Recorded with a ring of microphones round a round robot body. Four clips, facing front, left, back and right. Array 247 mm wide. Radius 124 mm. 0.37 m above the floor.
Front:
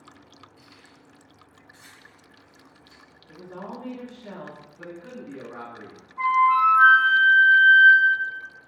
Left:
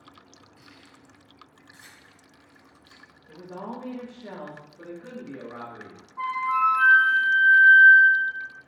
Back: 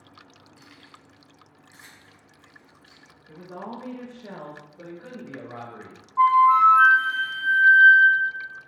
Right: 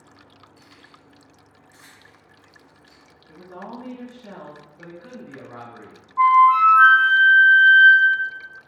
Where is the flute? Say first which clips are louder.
Right 12 dB, back 3 dB; 140° right, 0.7 m.